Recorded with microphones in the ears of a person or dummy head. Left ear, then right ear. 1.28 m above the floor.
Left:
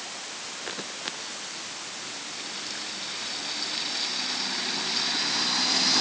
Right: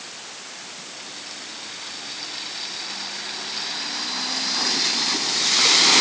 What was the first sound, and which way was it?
Only background noise.